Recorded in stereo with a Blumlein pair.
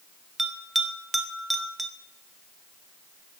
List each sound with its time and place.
0.4 s a bell: straight ahead, 1.0 m